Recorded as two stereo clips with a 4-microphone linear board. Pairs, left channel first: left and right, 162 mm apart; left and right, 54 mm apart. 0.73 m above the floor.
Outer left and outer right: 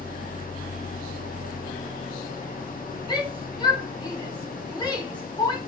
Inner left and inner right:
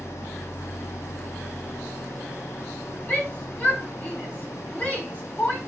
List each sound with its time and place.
0.0 s an engine running: 60° left (ahead or behind), 1.3 m
3.1 s a shout: 30° left (ahead or behind), 5 m